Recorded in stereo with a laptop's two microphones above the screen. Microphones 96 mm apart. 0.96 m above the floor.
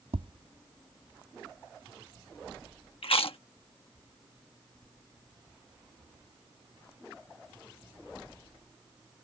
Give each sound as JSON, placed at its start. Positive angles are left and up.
{"t": 0.1, "sound": "tapping", "side_deg": -75}
{"t": 3.0, "sound": "chewing", "side_deg": 70}